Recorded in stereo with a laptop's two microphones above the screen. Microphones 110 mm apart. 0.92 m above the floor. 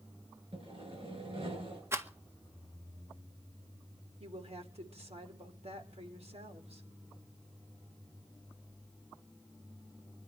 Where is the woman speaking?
70° right (ahead or behind), 3 m.